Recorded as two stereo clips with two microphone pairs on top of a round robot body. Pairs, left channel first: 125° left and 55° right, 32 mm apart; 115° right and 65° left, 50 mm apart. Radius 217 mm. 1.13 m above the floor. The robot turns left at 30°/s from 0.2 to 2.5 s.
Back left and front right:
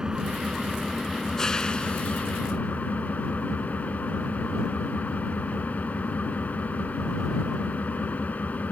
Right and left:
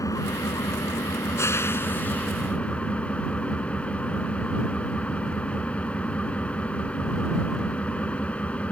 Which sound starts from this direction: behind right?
An engine running, at 0.0 s.